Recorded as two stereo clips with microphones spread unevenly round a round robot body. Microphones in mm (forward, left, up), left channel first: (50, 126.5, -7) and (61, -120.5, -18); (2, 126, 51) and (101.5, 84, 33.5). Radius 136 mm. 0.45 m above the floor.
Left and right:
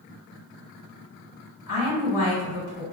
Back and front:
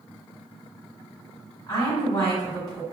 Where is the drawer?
No drawer in this recording.